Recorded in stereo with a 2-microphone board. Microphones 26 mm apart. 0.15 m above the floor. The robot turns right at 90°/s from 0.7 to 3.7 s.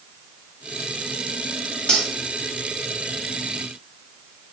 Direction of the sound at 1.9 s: 25° left (ahead or behind).